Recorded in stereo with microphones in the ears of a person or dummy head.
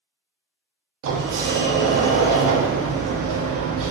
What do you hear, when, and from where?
1.0 s a sliding door: 80° right, 0.5 m